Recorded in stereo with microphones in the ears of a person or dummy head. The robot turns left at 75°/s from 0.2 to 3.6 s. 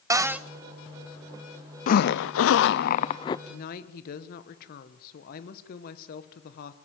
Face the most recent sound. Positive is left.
turn(degrees=55)  # may be behind; listen again after turning